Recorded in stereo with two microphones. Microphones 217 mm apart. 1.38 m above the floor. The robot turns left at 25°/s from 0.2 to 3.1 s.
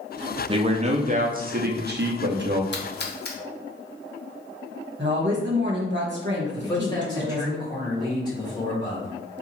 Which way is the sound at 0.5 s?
30° right.